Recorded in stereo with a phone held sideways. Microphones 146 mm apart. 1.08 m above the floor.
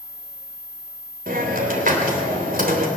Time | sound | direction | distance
1.3 | a hiss | 90° right | 3 m